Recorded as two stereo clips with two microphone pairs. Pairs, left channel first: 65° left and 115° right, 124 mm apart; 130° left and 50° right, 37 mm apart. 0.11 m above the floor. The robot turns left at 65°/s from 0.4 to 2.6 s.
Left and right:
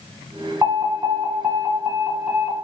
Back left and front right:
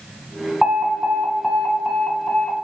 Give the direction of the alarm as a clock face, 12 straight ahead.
3 o'clock.